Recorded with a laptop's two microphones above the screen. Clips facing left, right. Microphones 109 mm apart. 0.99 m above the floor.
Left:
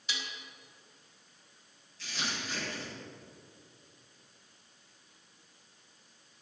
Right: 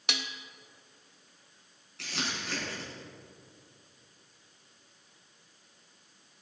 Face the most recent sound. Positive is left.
turn(degrees=-80)